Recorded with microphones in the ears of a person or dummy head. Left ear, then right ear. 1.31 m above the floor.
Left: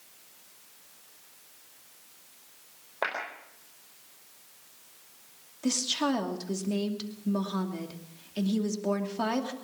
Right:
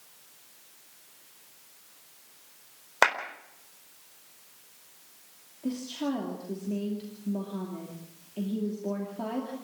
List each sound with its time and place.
3.0 s a clap: 65° right (ahead or behind), 4 m
5.6 s a woman speaking: 60° left (ahead or behind), 2.5 m